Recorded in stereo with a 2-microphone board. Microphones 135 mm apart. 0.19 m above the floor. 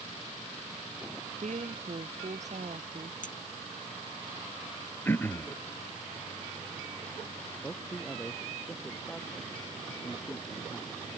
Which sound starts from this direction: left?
A clink, at 3.2 s.